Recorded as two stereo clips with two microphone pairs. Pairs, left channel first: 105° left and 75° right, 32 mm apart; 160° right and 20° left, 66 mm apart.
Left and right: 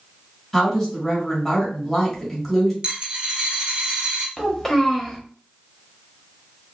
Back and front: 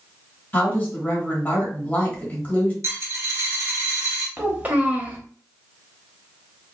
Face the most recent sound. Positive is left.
turn(degrees=35)